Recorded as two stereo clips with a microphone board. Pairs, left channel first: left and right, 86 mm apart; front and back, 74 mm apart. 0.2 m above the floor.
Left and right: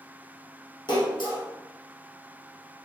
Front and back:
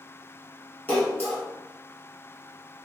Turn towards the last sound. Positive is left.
turn(degrees=65)